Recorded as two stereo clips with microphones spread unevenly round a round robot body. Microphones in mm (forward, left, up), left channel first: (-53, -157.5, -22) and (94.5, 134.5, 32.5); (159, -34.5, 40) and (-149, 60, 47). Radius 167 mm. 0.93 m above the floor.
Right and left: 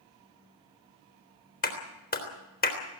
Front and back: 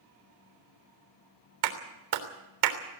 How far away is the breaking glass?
No breaking glass in this recording.